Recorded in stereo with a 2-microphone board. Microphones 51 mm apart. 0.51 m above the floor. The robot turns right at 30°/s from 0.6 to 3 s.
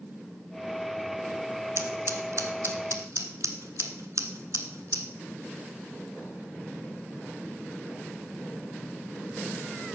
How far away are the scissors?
About 1.3 m.